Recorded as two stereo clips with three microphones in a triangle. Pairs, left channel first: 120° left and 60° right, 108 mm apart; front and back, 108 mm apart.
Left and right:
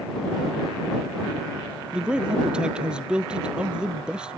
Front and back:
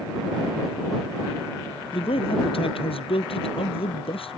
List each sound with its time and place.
1.9 s a man speaking: 20° left